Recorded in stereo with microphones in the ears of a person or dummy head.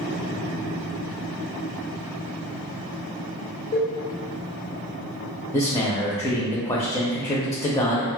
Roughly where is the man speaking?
Centre.